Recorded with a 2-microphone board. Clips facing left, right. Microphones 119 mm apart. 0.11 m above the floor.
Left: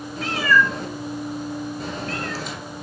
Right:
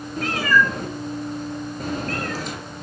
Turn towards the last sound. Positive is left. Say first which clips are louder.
# even
turn(degrees=-45)  # may be behind; listen again after turning